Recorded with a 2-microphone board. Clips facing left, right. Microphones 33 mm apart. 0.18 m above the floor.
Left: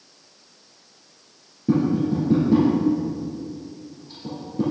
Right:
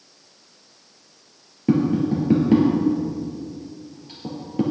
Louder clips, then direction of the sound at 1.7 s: Right 1 dB; 65° right (ahead or behind).